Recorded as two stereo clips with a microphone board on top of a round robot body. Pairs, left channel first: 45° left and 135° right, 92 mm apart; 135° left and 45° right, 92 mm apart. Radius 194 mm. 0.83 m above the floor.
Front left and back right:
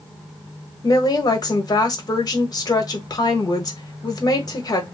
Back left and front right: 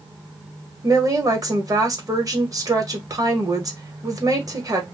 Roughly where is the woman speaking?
Ahead.